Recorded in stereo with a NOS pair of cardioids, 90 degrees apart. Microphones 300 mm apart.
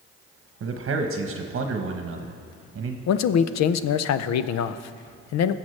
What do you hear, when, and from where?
0.6 s a man speaking: 45° right, 1.0 m
3.1 s a man speaking: 60° left, 0.6 m